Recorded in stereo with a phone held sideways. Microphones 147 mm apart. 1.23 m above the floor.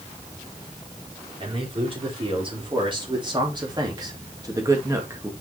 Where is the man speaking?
40° right (ahead or behind), 4 m; by 5.3 s 15° right (ahead or behind), 1.9 m.